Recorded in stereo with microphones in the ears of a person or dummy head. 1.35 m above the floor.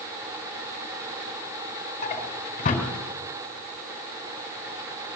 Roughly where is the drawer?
Left.